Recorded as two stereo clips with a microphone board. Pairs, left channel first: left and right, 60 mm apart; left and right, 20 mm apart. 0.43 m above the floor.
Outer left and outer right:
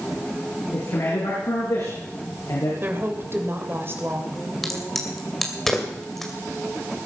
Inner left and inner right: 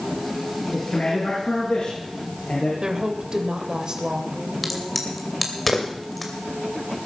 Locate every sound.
0.7 s a man speaking: 75° left (ahead or behind), 5 m; by 2.7 s 85° left, 6.5 m
2.8 s a woman speaking: 45° right (ahead or behind), 2 m
4.6 s a crack: 5° left (ahead or behind), 2.5 m